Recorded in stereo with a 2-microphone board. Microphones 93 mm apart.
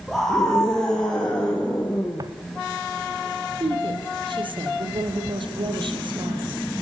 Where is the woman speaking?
65° right (ahead or behind), 5 m.